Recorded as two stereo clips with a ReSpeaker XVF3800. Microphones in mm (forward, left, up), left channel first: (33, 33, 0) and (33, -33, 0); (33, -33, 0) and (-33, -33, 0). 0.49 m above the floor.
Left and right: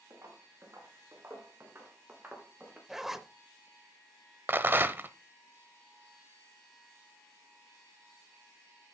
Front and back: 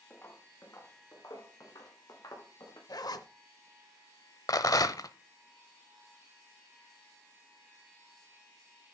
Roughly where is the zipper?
Ahead.